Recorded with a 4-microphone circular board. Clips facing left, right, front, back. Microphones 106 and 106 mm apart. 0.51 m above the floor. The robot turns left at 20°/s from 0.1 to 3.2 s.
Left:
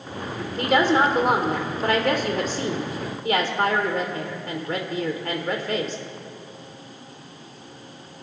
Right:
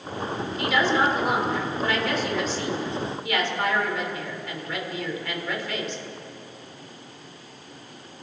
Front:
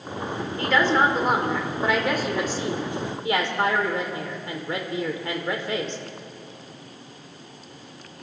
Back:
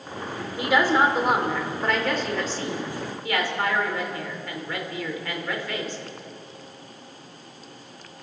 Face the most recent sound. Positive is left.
turn(degrees=55)